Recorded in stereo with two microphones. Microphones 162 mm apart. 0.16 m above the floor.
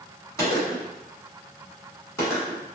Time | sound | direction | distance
0.4 | a gunshot | 20° left (ahead or behind) | 1.2 m